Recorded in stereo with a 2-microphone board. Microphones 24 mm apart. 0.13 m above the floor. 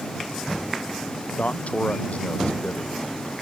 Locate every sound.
1.4 s a man speaking: 70° left (ahead or behind)